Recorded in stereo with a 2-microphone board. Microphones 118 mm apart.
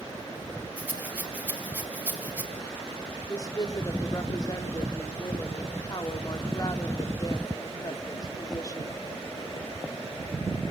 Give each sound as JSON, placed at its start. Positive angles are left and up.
{"t": 0.8, "sound": "a rattle", "side_deg": -15, "distance_m": 3.5}
{"t": 3.3, "sound": "a woman speaking", "side_deg": 35, "distance_m": 2.0}